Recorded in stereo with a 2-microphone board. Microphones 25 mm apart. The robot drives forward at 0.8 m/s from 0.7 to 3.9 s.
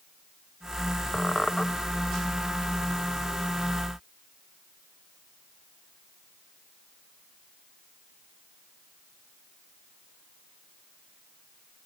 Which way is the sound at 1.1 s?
35° left (ahead or behind).